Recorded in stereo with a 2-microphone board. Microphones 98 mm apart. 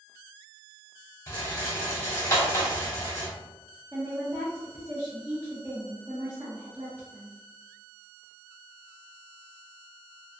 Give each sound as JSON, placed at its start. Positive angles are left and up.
{"t": 1.3, "sound": "a rattle", "side_deg": 25, "distance_m": 1.1}
{"t": 3.9, "sound": "a woman speaking", "side_deg": -20, "distance_m": 0.6}